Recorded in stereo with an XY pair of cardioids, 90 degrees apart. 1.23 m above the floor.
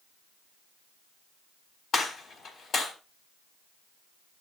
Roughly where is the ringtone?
No ringtone in this recording.